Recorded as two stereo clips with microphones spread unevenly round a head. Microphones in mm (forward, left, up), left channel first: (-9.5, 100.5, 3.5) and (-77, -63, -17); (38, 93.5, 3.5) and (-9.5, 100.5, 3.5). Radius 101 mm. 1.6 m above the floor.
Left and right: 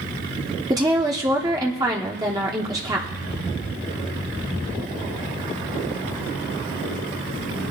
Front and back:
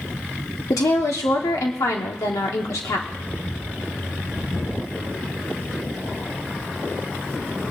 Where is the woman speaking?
40° right, 1.1 m.